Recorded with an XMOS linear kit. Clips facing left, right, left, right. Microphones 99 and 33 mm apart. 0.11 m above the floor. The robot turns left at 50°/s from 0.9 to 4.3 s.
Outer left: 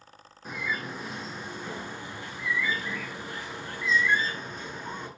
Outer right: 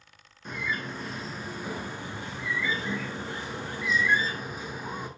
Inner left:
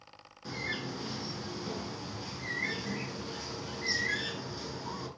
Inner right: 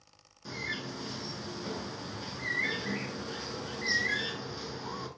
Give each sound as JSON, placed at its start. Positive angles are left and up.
{"t": 0.5, "sound": "a bird", "side_deg": 5, "distance_m": 1.1}